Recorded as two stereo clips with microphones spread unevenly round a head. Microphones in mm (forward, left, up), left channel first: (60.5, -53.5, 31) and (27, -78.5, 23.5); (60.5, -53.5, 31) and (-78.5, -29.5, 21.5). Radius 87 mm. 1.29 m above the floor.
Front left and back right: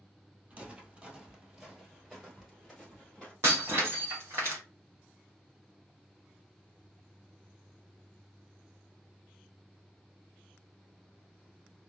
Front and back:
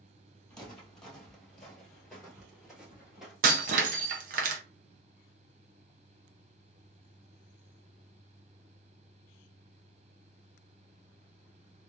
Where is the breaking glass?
160° left, 0.6 m.